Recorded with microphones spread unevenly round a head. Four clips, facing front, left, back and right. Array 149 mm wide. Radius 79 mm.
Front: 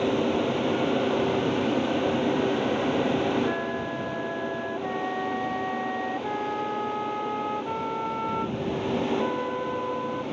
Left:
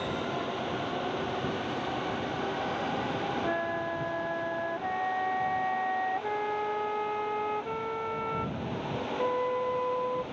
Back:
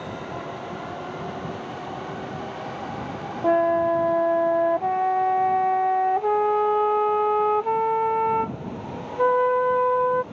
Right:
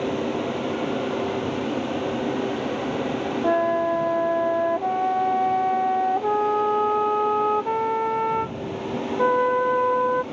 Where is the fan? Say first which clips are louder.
Right 8 dB, front 9 dB; 35° right.